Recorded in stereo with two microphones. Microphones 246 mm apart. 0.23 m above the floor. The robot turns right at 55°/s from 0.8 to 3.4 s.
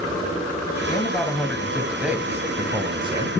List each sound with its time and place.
0.9 s a man speaking: 15° left (ahead or behind), 1.3 m; by 3.3 s 20° right (ahead or behind), 1.3 m